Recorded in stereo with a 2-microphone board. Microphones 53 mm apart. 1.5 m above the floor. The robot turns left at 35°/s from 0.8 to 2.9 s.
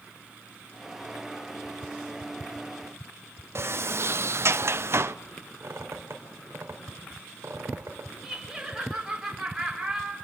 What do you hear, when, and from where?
3.5 s a sliding door: 50° right (ahead or behind), 0.6 m
5.6 s a squeak: 55° right (ahead or behind), 3.5 m
8.2 s laughter: 10° right (ahead or behind), 4.5 m